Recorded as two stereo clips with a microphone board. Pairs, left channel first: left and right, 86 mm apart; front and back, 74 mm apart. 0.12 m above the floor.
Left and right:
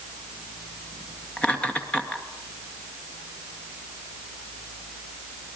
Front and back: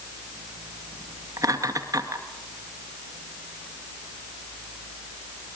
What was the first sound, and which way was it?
Laughter, 165° left.